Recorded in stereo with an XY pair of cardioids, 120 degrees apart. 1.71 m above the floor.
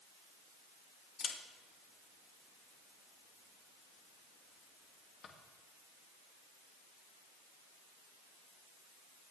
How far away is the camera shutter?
About 2.5 m.